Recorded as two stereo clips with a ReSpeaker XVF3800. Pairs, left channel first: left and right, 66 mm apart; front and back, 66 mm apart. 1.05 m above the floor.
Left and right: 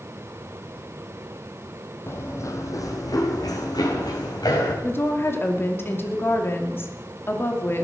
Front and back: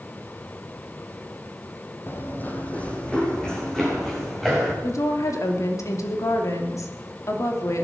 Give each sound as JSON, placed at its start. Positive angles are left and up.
{"t": 2.1, "sound": "running footsteps", "azimuth_deg": 45, "distance_m": 1.8}
{"t": 4.8, "sound": "a woman speaking", "azimuth_deg": 35, "distance_m": 2.5}